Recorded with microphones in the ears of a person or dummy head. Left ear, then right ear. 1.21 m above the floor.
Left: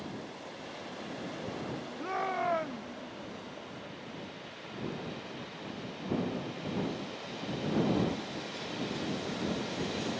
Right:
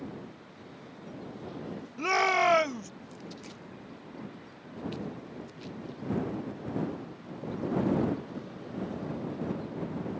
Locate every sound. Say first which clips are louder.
2.0 s a shout: right 9 dB; 85° right